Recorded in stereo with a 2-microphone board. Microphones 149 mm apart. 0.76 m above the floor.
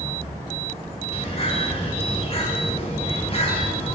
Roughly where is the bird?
Left.